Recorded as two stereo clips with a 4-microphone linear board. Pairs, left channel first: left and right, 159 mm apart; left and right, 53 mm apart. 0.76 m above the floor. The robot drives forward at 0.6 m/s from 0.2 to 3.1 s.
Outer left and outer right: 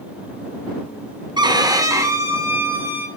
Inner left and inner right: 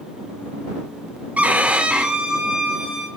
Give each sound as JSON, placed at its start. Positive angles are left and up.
{"t": 1.4, "sound": "a violin", "side_deg": -25, "distance_m": 0.6}